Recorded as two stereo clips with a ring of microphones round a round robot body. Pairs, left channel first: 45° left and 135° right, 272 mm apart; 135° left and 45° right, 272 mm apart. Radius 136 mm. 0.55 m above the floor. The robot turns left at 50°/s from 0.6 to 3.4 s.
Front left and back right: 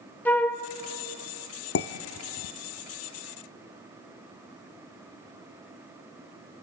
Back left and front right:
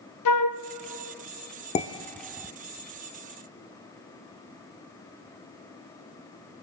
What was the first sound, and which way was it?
A flute, 130° left.